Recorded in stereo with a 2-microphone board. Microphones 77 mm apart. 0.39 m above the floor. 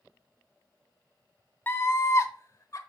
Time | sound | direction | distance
1.7 | a scream | 25° left (ahead or behind) | 0.9 m